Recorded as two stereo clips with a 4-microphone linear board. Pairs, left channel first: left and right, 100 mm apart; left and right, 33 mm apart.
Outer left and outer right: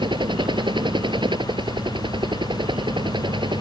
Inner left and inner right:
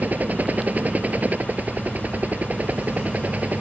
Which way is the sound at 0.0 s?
50° right (ahead or behind).